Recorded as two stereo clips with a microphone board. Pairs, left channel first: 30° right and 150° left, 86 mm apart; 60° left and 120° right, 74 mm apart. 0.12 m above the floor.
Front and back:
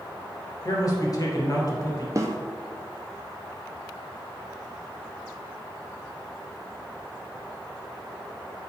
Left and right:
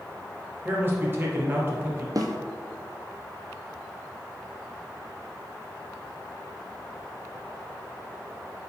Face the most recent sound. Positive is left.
turn(degrees=-155)